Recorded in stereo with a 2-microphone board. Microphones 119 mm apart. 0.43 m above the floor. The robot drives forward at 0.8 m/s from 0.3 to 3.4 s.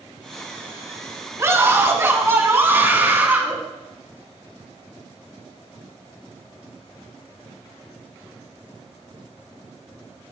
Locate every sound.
1.4 s a scream: 25° right (ahead or behind), 4 m; by 3.6 s 15° right (ahead or behind), 5 m